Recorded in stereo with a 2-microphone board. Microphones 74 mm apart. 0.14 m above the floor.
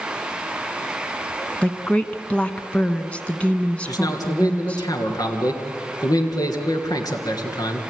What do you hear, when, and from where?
1.6 s a woman speaking: 15° left (ahead or behind), 1.0 m
3.9 s a man speaking: 50° left (ahead or behind), 2.5 m